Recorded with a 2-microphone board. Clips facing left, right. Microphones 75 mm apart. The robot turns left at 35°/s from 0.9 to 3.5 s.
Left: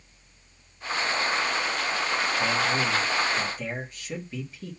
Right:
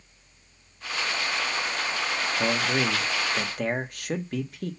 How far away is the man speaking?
About 1.4 m.